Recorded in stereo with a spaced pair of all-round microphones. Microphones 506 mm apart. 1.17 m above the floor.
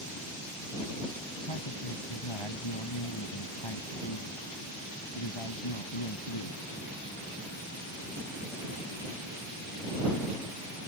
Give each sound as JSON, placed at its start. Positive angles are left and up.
{"t": 1.4, "sound": "a man speaking", "side_deg": 65}